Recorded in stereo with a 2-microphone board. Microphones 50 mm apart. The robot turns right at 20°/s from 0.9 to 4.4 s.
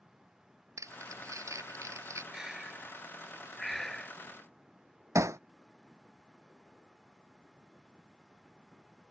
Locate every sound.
0.8 s crumpling: 85° right; by 2.2 s 70° right (ahead or behind)
2.3 s breathing: 20° right; by 4.2 s 15° left
5.2 s hammering: 75° right (ahead or behind)